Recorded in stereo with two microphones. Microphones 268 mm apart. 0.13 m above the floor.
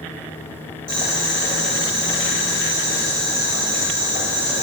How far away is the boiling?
About 1.7 m.